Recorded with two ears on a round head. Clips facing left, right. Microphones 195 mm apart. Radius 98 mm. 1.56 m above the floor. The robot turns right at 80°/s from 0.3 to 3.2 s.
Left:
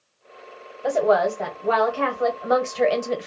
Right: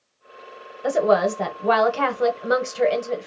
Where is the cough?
No cough in this recording.